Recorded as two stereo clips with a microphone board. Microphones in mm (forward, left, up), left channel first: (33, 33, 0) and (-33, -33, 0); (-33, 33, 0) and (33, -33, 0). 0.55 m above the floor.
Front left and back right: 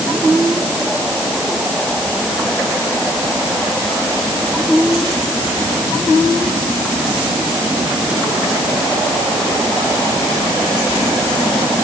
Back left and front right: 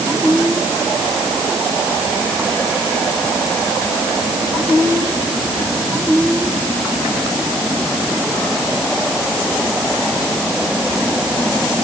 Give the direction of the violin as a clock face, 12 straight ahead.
I don't hear a violin.